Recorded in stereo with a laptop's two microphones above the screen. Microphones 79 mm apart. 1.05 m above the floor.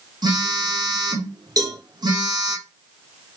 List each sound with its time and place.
0.2 s a phone buzzing: 60° right (ahead or behind), 3 m
1.6 s a cowbell: 55° right (ahead or behind), 4 m